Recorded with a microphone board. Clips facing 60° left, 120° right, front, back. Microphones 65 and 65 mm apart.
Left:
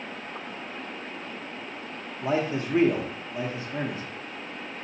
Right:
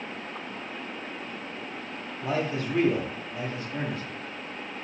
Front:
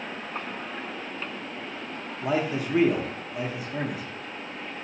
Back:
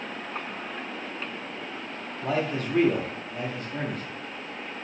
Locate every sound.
2.2 s a man speaking: 65° left, 0.7 m